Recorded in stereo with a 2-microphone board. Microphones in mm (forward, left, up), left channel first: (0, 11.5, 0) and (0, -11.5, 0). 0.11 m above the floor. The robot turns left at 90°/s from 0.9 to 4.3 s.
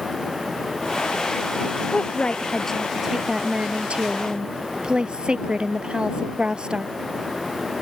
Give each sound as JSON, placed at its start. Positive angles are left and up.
{"t": 1.9, "sound": "a woman speaking", "azimuth_deg": 90}